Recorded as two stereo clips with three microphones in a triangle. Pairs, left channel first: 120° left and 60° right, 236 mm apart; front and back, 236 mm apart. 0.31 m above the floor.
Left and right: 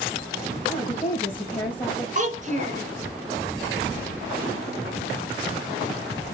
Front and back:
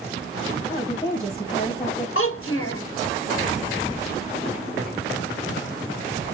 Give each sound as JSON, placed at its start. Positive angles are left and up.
{"t": 0.7, "sound": "a woman speaking", "azimuth_deg": 60, "distance_m": 2.0}
{"t": 2.1, "sound": "a child speaking", "azimuth_deg": -5, "distance_m": 1.9}